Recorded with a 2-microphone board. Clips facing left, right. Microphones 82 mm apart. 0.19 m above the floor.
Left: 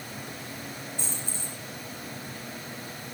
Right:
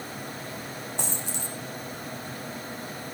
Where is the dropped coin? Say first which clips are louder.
Right 4 dB; 70° right (ahead or behind), 2.5 m.